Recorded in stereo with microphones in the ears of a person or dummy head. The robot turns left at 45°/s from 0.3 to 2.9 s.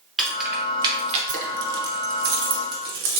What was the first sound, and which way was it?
Keys jangling, centre (ahead or behind).